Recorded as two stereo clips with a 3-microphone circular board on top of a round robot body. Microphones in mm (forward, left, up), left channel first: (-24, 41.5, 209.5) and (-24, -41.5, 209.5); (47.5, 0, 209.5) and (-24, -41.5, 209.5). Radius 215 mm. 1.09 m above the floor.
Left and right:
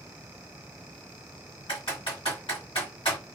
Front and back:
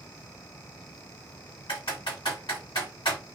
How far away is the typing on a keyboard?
About 1.6 m.